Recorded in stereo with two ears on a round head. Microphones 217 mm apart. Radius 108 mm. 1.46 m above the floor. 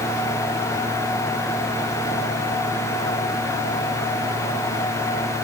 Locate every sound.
Only background noise.